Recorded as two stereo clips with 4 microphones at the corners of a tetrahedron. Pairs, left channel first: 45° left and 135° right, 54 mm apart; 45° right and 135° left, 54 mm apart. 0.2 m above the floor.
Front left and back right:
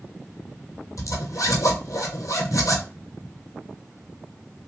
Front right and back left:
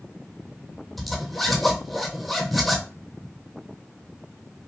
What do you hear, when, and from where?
1.0 s a zipper: 45° left, 1.1 m